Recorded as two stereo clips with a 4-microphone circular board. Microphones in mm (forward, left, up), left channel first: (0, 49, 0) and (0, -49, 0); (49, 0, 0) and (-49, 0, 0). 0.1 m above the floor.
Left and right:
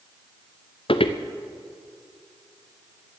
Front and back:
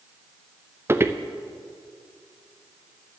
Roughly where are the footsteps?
Behind left.